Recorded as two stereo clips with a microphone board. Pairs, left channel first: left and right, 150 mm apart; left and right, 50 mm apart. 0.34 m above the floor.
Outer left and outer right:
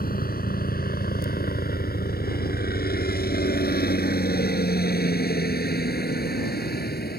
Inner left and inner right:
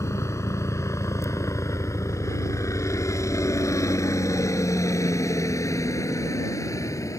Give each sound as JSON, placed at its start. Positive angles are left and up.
{"t": 0.0, "sound": "a helicopter", "side_deg": 65}